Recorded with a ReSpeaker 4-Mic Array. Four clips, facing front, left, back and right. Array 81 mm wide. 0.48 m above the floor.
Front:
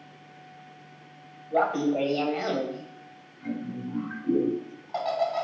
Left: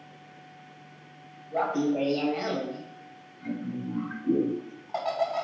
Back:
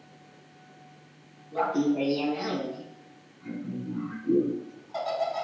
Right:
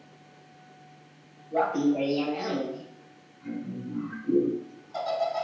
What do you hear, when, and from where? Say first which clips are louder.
1.5 s laughter: right 2 dB, front 1 dB; straight ahead, 2 m; by 5.5 s 60° left, 3.5 m